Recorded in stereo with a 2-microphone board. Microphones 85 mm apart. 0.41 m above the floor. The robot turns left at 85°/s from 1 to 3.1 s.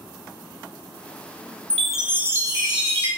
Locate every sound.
1.7 s a chime: 20° left, 0.7 m; by 3.1 s 100° right, 0.7 m